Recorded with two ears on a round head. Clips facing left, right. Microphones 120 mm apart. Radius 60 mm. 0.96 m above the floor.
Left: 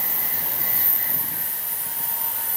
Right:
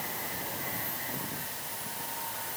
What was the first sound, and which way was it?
Only background noise.